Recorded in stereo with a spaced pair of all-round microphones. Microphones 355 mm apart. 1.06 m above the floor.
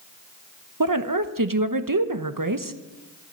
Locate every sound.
0.8 s a woman speaking: 65° right (ahead or behind), 1.0 m